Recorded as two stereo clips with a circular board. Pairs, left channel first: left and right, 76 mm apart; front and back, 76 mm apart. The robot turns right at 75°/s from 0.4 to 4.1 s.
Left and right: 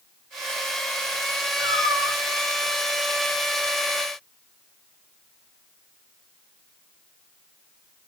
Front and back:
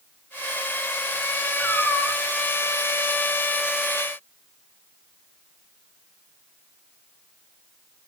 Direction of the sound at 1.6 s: 85° right.